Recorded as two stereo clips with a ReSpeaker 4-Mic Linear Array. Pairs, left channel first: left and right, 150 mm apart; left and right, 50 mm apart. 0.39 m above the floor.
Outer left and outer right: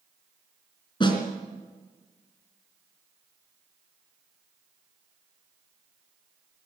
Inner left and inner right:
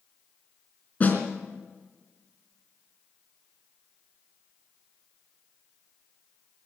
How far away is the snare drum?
About 3.5 m.